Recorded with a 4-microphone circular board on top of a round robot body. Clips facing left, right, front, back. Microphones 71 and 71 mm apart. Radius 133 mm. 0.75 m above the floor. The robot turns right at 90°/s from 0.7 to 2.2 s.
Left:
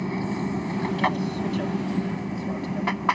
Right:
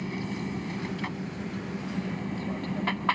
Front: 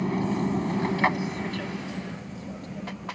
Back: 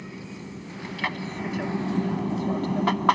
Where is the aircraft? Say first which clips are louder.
Left 6 dB, front 13 dB; 30° left; by 3.1 s 165° left.